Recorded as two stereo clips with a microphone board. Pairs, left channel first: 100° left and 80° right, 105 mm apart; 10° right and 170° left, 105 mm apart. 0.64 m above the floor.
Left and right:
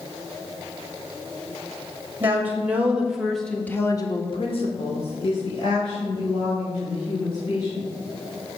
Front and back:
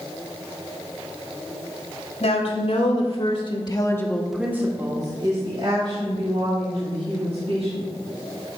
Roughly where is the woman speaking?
Ahead.